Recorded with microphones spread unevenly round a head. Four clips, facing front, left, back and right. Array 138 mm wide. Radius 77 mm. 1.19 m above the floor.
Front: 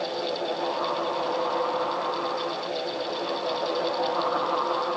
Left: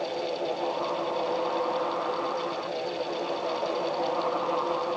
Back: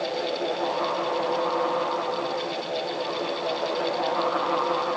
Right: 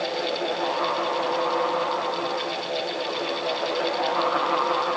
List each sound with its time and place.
Only background noise.